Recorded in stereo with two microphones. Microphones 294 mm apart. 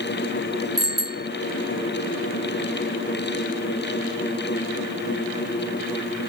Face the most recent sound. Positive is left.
turn(degrees=-55)  # may be behind; listen again after turning